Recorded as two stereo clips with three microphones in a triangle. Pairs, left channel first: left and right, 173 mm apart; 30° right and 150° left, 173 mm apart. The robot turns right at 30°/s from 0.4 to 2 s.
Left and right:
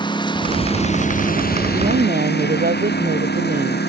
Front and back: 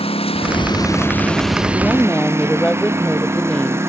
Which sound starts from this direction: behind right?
A woman speaking, at 1.7 s.